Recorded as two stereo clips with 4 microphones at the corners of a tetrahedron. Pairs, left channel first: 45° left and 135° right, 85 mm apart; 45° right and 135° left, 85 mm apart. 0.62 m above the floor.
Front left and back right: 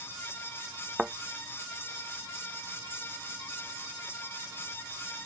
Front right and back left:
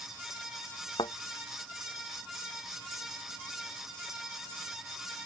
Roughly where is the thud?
Ahead right.